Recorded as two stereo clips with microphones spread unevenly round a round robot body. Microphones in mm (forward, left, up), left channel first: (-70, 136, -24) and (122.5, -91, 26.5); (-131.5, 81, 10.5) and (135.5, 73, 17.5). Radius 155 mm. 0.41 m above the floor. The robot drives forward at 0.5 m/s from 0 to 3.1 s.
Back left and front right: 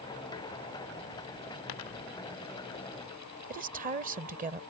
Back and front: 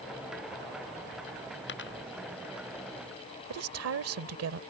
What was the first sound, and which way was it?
A dropped coin, 130° left.